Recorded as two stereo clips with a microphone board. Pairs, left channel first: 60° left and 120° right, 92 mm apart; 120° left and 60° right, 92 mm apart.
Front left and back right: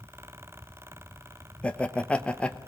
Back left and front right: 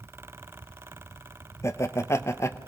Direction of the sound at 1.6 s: 125° left.